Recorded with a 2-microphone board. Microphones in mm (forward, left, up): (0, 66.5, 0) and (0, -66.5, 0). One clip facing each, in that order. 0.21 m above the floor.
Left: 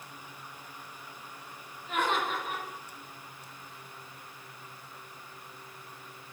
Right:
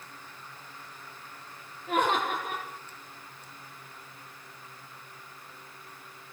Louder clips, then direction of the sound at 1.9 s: Right 3 dB; 50° right (ahead or behind).